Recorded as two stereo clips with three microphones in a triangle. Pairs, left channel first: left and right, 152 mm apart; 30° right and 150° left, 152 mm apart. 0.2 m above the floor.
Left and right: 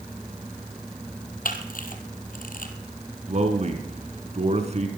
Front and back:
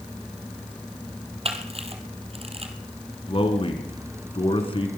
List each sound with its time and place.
1.4 s a camera shutter: 105° left, 2.0 m
3.3 s a man speaking: 70° right, 2.5 m